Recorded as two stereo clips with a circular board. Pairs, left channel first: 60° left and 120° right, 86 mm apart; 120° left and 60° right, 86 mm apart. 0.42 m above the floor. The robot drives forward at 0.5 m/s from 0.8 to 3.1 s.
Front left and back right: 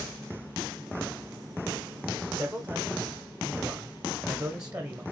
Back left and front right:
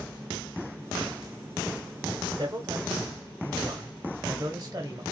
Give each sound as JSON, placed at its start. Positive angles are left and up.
{"t": 2.3, "sound": "a man speaking", "azimuth_deg": -75, "distance_m": 1.4}